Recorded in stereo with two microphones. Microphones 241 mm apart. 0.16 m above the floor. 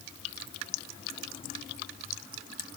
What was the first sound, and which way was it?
Only background noise.